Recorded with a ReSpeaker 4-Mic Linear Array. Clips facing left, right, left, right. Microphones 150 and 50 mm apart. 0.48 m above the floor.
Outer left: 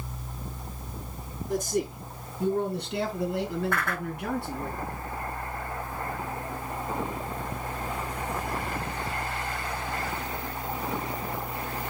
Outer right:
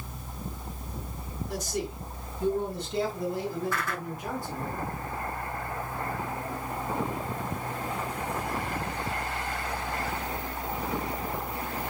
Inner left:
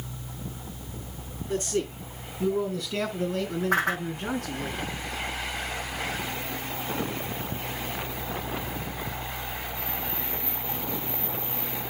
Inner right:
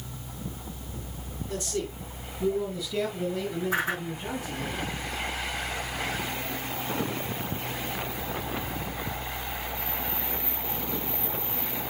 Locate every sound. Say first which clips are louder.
1.5 s a man speaking: outer left 6 dB, inner left 4 dB; 50° left (ahead or behind), 5 m; by 4.7 s 70° left (ahead or behind), 4.5 m
3.7 s a whoosh: outer left 2 dB, inner left 4 dB; 60° left (ahead or behind), 4 m